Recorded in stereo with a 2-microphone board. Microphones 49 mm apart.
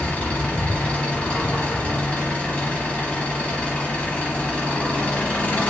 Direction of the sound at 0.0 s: 30° left (ahead or behind).